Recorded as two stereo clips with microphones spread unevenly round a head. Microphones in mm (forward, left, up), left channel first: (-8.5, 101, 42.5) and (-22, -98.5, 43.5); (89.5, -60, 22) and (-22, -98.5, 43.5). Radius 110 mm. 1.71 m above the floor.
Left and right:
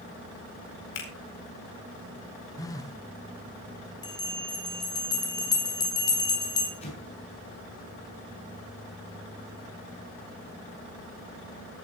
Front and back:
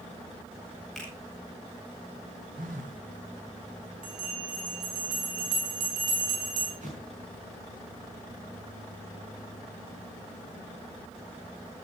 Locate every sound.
0.9 s a finger snap: 110° left, 4.5 m
2.6 s a phone buzzing: 160° left, 1.7 m
4.0 s a bell: 155° left, 3.5 m
6.8 s an explosion: 145° left, 6 m